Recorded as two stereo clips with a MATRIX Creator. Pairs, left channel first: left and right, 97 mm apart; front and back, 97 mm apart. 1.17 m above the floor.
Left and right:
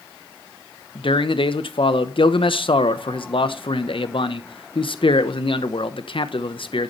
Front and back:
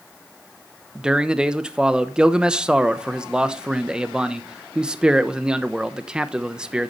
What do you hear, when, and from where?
0.9 s a man speaking: 100° left, 1.0 m